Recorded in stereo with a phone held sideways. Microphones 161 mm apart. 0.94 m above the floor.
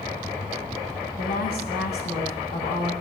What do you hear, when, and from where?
1.2 s a woman speaking: 75° left (ahead or behind), 8 m